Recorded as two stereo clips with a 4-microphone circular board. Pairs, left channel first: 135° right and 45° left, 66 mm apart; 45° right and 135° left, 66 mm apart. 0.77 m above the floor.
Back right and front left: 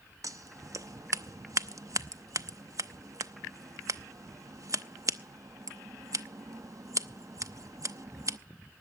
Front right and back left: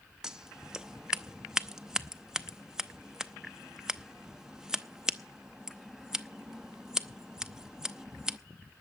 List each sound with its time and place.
0.2 s scissors: 60° left, 0.6 m